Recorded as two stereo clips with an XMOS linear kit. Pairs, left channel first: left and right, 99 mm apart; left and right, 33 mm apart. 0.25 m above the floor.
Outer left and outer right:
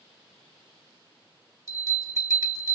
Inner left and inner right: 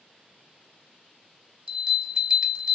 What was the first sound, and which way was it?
A bell, 35° right (ahead or behind).